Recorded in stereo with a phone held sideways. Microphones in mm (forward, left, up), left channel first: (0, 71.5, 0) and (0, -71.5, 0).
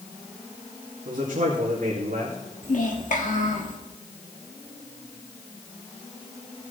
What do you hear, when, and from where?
1.1 s a man speaking: 75° right (ahead or behind), 2.5 m
2.6 s a child speaking: 65° left (ahead or behind), 2 m